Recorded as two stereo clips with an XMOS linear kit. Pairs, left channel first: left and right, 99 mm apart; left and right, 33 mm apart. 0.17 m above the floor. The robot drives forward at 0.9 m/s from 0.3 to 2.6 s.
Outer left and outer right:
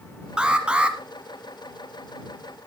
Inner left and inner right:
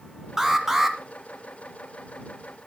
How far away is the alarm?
About 1.5 m.